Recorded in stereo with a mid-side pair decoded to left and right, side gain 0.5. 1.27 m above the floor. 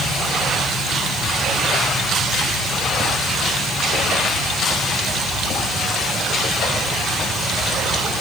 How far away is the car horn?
No car horn in this recording.